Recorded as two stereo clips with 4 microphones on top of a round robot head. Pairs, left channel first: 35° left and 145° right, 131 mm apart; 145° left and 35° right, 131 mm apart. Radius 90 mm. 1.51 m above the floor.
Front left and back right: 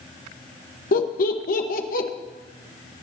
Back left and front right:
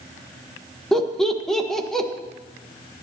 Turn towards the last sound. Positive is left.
turn(degrees=55)